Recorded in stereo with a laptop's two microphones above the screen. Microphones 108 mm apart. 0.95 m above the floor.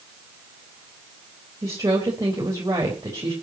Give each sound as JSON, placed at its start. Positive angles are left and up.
{"t": 1.6, "sound": "a woman speaking", "side_deg": -30, "distance_m": 4.0}